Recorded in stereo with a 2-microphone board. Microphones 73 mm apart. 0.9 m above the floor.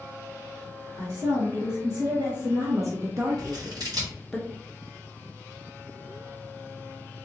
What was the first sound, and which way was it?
A woman speaking, 60° right (ahead or behind).